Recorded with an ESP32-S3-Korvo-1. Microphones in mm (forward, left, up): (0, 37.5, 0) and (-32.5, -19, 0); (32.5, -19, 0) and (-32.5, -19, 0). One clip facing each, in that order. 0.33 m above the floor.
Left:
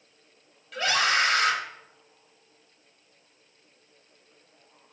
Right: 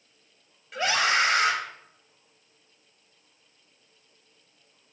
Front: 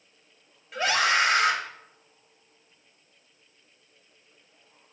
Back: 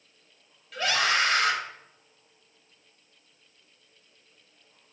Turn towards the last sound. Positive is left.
turn(degrees=-60)